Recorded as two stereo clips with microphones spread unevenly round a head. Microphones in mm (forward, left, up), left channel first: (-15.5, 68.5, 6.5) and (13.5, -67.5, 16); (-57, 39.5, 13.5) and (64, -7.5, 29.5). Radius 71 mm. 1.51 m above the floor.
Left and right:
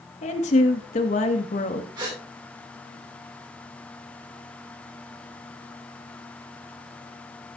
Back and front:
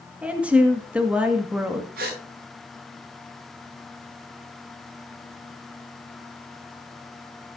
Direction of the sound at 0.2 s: 60° left.